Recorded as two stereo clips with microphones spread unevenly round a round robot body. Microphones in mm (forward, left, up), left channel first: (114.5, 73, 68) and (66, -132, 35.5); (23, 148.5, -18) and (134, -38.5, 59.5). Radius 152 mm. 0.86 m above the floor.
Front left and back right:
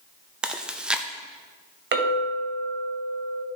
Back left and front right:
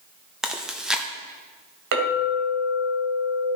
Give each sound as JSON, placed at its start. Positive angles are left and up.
{"t": 0.4, "sound": "chewing", "azimuth_deg": -175, "distance_m": 0.5}
{"t": 1.9, "sound": "a clink", "azimuth_deg": -70, "distance_m": 2.5}